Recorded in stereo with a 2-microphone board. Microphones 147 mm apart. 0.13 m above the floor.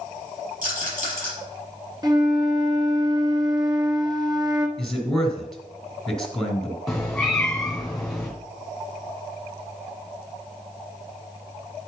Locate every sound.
0.6 s a rattle: 70° right (ahead or behind), 5 m
2.0 s a flute: 30° right (ahead or behind), 1.0 m
4.8 s a man speaking: centre (ahead or behind), 2 m
6.9 s a cat meowing: centre (ahead or behind), 2.0 m